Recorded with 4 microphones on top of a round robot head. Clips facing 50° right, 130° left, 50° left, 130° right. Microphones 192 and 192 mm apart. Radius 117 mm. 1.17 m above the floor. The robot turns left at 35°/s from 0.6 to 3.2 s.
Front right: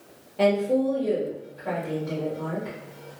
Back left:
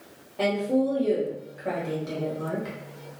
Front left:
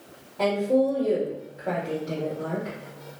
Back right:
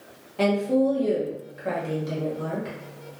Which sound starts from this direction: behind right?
A woman speaking, at 0.4 s.